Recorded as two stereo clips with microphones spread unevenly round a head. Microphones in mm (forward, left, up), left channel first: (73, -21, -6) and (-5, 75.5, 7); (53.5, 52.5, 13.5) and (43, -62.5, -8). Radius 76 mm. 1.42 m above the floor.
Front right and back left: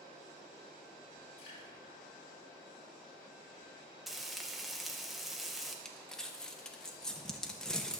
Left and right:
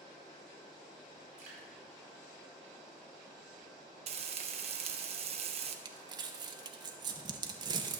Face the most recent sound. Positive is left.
turn(degrees=-140)